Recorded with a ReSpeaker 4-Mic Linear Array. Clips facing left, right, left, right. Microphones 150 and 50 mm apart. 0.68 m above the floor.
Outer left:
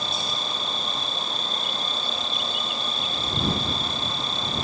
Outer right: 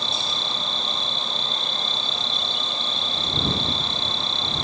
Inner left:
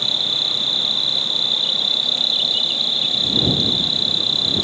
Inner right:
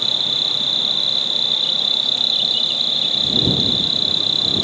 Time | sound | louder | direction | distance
0.0 | an insect | even, inner right 1 dB | 5° left (ahead or behind) | ?